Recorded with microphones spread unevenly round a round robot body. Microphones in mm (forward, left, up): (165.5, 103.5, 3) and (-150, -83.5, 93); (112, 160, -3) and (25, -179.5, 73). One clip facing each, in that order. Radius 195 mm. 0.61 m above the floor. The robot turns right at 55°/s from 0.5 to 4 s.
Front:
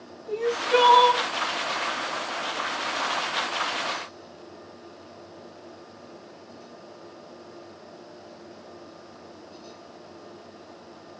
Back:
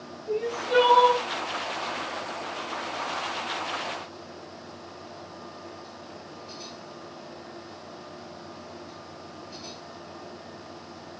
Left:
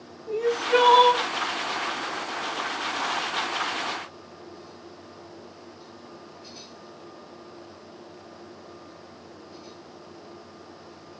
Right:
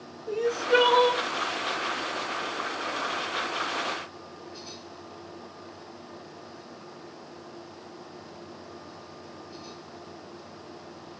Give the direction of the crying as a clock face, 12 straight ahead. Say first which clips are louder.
Front 3 dB, left 2 dB; 1 o'clock.